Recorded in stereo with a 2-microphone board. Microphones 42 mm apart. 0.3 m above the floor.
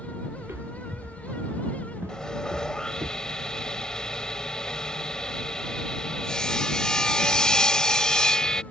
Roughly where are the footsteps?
Right.